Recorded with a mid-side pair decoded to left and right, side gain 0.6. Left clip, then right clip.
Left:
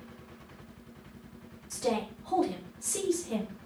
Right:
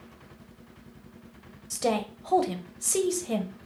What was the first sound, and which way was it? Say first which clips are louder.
A woman speaking: right 3 dB; 45° right.